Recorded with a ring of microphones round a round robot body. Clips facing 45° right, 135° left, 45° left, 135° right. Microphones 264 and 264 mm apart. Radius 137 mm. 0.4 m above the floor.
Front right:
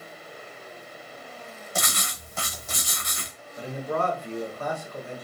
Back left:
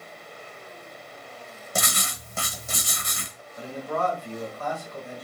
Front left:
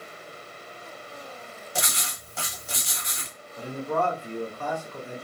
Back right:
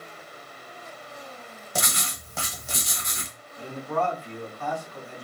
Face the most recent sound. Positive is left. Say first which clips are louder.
# front right 1 dB, front left 1 dB
turn(degrees=10)